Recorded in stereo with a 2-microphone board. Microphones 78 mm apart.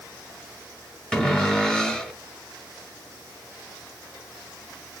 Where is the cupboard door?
10° left (ahead or behind), 1.1 m.